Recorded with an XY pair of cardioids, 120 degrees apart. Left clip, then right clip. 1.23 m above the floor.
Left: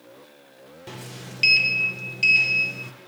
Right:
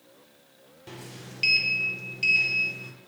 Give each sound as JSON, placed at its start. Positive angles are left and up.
{"t": 0.9, "sound": "a sliding door", "azimuth_deg": 30, "distance_m": 0.7}